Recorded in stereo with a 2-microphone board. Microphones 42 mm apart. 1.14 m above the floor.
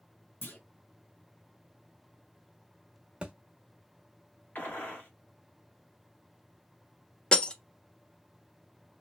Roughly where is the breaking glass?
Left.